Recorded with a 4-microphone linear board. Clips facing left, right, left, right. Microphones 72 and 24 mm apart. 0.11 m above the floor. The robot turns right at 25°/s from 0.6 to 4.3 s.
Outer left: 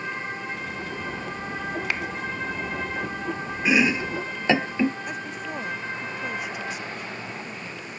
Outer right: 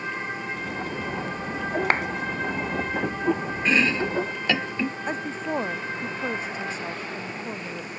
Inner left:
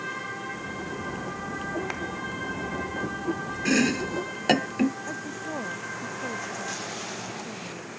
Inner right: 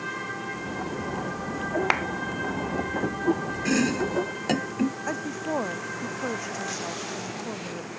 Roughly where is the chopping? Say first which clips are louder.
Outer left 1 dB, inner left 1 dB; centre.